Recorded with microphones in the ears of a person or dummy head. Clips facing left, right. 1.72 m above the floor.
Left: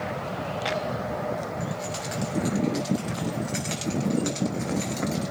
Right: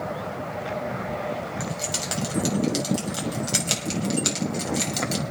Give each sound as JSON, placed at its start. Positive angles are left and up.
{"t": 1.6, "sound": "keys jangling", "side_deg": -70, "distance_m": 7.0}